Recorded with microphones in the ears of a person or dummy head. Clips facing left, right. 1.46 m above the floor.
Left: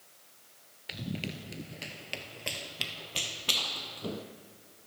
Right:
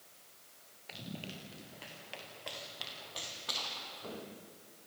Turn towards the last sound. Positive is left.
turn(degrees=50)  # may be behind; listen again after turning